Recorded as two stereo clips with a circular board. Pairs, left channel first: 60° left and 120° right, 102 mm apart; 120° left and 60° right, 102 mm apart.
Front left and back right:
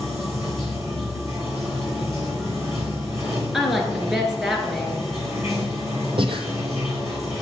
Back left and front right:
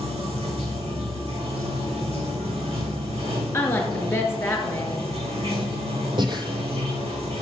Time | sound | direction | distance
0.0 | running water | 60° right | 1.5 m
3.5 | a woman speaking | 155° left | 1.4 m
6.2 | breathing | 95° right | 0.7 m